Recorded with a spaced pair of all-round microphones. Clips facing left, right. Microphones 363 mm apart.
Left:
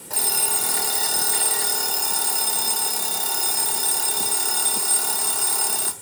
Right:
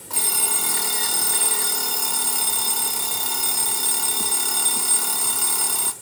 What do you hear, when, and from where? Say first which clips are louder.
0.1 s an alarm clock: left 1 dB; 10° right (ahead or behind), 2 m